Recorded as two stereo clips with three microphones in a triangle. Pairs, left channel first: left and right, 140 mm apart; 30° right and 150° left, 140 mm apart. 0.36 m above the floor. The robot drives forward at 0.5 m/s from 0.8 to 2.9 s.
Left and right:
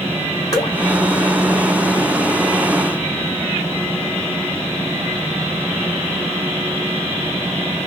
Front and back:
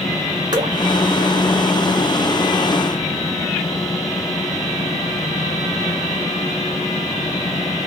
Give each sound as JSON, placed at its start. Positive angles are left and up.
{"t": 0.5, "sound": "dripping", "azimuth_deg": 125, "distance_m": 1.7}